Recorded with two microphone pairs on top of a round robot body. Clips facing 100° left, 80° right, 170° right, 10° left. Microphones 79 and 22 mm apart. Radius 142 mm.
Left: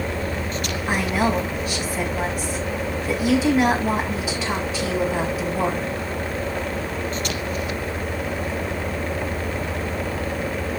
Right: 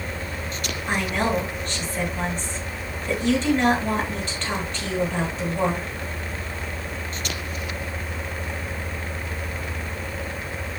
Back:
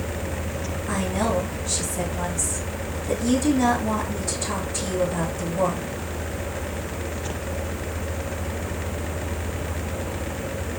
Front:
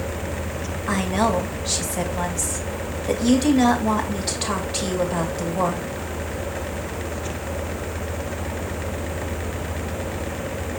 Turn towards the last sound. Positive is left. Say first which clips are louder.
# left 2 dB, front 4 dB
turn(degrees=20)